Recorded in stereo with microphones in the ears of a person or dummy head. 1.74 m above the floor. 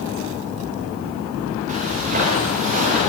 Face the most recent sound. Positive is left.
turn(degrees=-45)  # may be behind; listen again after turning